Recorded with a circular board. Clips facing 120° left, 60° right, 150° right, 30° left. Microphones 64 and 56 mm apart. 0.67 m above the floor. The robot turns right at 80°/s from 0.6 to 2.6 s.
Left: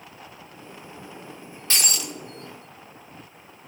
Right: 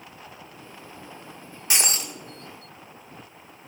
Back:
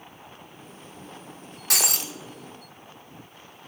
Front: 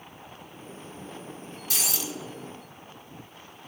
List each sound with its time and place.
1.7 s breaking glass: 135° right, 0.6 m; by 2.1 s 100° right, 0.6 m